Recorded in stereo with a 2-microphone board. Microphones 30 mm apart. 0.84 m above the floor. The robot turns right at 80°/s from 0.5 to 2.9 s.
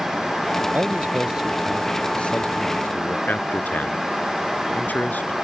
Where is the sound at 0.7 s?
75° right; by 3.2 s 95° left.